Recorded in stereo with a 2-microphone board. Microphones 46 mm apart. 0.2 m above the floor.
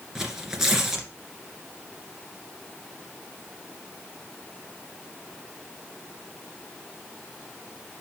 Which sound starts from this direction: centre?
Tearing paper, at 0.1 s.